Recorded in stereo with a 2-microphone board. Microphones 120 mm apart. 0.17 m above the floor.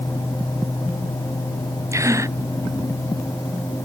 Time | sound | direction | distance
1.9 | a gasp | 25° right (ahead or behind) | ?